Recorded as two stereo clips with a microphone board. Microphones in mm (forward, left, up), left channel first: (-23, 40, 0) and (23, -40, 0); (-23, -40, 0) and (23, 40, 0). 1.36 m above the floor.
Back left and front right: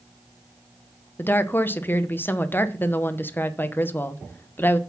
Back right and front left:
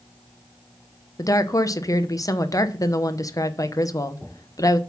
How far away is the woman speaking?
About 0.8 m.